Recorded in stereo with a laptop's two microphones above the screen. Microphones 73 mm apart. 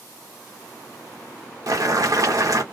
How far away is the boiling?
About 0.8 m.